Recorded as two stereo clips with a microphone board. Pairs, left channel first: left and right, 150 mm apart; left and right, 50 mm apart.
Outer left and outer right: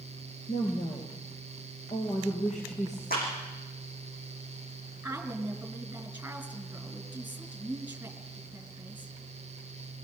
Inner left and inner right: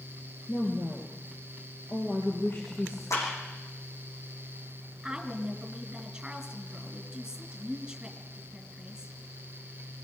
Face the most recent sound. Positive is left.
turn(degrees=-10)  # may be behind; listen again after turning